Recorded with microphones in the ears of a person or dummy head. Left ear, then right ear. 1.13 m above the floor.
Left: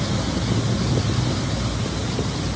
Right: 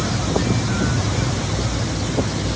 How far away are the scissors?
I don't hear scissors.